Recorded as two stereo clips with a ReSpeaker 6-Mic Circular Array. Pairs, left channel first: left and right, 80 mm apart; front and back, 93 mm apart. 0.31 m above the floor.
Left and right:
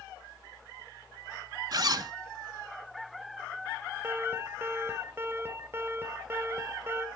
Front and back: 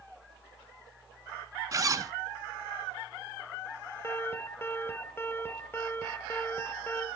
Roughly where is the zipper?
Behind right.